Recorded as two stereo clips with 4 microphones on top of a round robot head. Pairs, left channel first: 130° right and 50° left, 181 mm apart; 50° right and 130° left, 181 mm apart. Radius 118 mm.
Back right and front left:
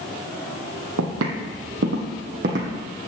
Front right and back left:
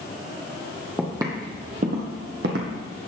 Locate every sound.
1.0 s footsteps: 50° left, 1.5 m; by 2.9 s 105° left, 2 m